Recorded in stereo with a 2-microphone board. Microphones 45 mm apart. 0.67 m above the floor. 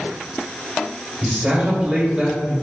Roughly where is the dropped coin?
I don't hear a dropped coin.